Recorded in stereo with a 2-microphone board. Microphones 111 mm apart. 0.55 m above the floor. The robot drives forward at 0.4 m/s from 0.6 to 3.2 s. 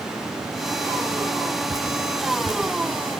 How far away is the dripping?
About 3.5 m.